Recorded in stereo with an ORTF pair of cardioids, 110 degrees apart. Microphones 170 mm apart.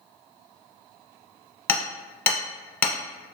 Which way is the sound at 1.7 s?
15° left.